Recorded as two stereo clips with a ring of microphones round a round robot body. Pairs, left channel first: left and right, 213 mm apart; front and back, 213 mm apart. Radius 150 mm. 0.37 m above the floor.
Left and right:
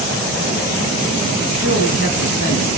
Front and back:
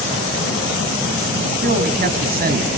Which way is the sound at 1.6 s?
140° left.